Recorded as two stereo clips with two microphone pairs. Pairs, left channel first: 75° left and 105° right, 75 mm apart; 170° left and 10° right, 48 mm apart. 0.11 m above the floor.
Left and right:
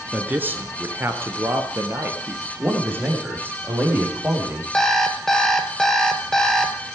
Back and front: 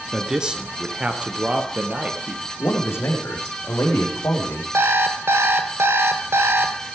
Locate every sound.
0.1 s a man speaking: 70° right, 1.4 m; by 2.5 s 65° right, 2.5 m
2.6 s a man speaking: 165° right, 5 m
4.7 s an alarm clock: 10° right, 1.7 m